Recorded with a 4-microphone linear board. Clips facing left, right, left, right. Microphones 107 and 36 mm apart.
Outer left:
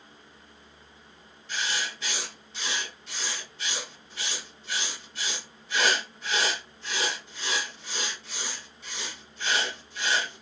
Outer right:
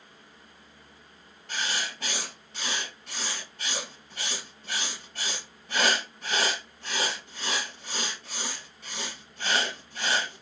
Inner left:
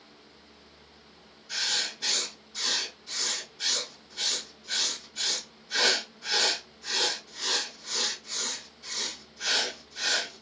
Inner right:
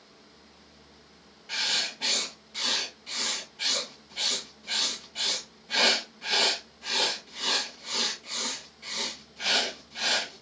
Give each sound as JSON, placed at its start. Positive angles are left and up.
{"t": 1.5, "sound": "writing", "side_deg": -55, "distance_m": 2.5}